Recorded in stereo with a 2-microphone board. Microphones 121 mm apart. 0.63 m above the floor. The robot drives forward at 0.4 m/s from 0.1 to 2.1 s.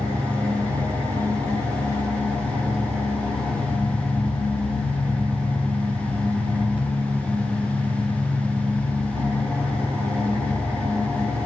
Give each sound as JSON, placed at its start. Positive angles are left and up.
{"t": 0.0, "sound": "an engine running", "side_deg": -15, "distance_m": 3.5}